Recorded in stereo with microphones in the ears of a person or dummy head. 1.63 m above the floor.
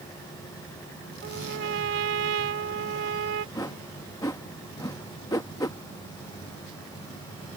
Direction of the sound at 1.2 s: 60° right (ahead or behind).